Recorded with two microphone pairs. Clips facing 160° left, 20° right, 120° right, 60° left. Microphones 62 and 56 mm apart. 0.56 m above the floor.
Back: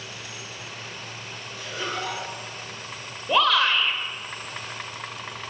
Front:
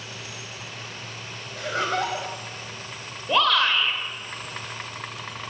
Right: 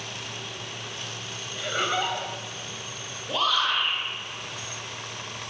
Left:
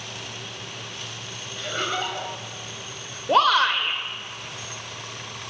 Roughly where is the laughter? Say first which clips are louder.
Front 6 dB, right 1 dB; ahead right.